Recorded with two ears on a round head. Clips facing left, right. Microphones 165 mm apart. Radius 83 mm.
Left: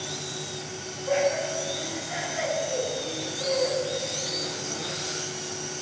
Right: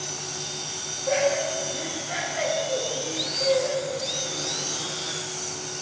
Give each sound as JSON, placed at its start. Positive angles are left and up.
{"t": 1.1, "sound": "laughter", "side_deg": -50, "distance_m": 3.0}